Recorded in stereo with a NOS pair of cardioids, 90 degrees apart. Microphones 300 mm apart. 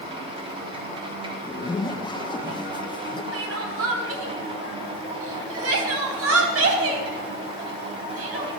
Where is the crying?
55° right, 4 m.